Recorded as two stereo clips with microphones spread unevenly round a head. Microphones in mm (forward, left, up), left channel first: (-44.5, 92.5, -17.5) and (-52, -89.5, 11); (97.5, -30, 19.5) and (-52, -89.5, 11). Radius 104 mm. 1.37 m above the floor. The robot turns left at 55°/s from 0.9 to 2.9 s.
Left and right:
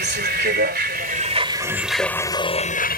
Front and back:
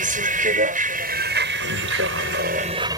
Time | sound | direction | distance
0.0 | a vehicle | 125° right | ?